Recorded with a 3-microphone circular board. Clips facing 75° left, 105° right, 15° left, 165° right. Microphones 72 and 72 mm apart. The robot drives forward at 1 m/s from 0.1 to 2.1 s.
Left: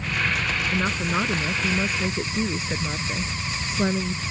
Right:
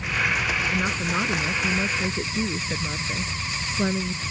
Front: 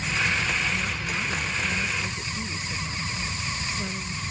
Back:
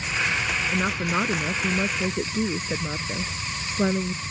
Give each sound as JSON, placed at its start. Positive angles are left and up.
{"t": 0.7, "sound": "a woman speaking", "azimuth_deg": 155}